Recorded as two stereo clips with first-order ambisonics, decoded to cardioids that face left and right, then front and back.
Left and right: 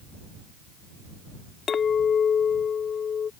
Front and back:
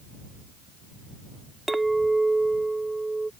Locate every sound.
1.7 s a clink: 105° left